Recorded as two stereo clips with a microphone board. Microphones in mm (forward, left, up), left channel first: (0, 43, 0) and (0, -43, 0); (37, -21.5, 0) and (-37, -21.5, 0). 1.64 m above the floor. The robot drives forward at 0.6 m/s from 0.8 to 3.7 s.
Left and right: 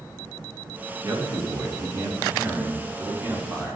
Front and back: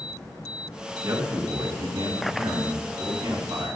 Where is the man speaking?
145° right, 2.5 m; by 3.8 s 160° right, 4 m.